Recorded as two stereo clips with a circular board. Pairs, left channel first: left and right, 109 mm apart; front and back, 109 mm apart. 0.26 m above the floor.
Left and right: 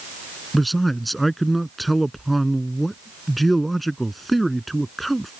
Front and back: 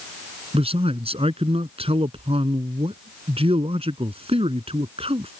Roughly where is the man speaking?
Behind.